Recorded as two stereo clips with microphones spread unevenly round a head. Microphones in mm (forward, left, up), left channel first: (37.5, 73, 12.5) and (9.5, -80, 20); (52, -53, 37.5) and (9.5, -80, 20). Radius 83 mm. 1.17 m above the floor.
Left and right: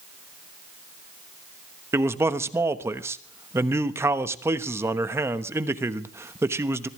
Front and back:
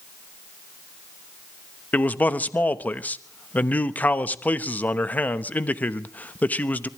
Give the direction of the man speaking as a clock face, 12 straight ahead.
1 o'clock.